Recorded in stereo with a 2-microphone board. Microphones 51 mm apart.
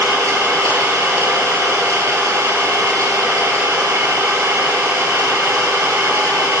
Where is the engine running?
65° right (ahead or behind), 6.5 m.